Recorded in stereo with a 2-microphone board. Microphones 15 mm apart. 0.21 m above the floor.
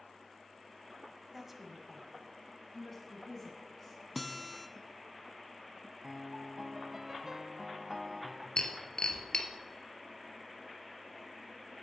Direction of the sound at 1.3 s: 10° right (ahead or behind).